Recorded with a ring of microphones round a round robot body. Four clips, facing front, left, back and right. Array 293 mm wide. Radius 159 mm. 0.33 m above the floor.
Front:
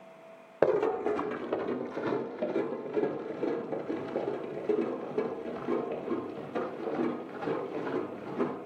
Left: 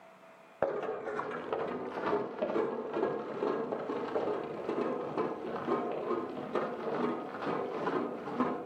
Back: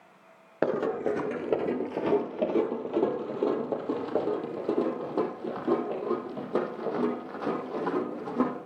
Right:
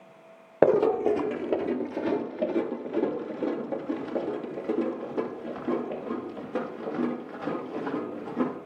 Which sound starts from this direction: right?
Running footsteps, at 0.6 s.